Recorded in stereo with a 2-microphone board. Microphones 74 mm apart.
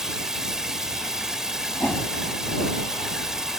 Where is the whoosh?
20° left (ahead or behind).